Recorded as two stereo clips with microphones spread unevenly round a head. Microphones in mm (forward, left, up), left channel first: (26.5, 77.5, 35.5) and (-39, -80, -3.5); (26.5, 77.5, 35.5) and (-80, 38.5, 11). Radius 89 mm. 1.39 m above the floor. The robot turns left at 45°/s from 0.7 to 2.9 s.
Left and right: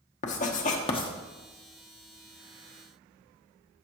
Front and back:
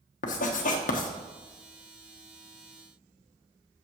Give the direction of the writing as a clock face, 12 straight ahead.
11 o'clock.